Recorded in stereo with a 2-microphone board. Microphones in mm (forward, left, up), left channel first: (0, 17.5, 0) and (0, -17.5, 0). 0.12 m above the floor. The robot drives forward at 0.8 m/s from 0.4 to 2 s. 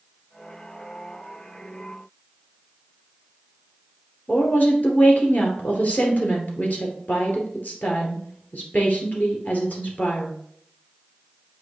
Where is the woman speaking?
50° left (ahead or behind), 2 m.